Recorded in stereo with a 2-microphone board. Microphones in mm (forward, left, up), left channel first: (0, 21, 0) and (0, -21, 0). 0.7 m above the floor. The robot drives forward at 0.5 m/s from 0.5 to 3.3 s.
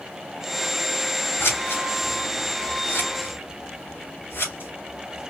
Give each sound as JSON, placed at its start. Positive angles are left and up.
{"t": 1.4, "sound": "scissors", "side_deg": 65, "distance_m": 2.5}